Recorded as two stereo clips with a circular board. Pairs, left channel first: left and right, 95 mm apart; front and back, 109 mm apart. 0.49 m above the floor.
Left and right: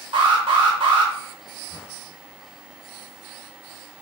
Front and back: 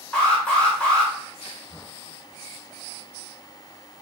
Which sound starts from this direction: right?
An alarm, at 0.1 s.